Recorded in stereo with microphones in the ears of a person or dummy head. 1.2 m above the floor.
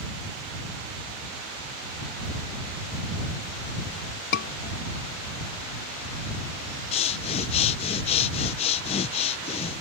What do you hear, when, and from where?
4.3 s a scream: 60° left (ahead or behind)
6.9 s breathing: 30° left (ahead or behind)